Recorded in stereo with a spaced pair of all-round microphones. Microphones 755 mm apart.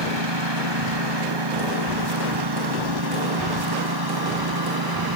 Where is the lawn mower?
35° right (ahead or behind); by 5.2 s 30° right (ahead or behind).